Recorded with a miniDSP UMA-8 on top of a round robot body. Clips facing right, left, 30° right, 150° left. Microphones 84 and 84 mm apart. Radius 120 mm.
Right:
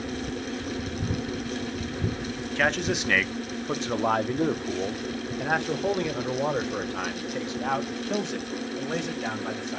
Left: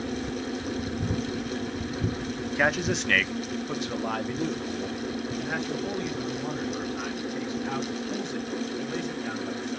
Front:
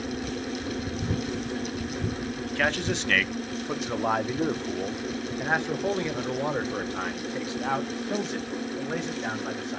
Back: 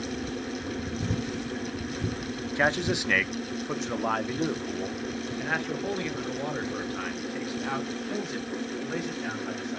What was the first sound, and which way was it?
A man speaking, 145° left.